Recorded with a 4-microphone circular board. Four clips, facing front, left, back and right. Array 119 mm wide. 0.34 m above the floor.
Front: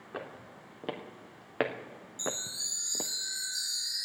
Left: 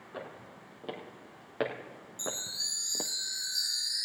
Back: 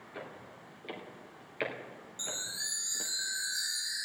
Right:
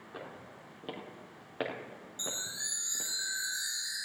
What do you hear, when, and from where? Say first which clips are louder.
0.1 s footsteps: left 2 dB, front 4 dB; 5° left, 3.5 m; by 3.1 s 55° left, 0.8 m
2.2 s a chime: left 3 dB, front 6 dB; 140° right, 1.7 m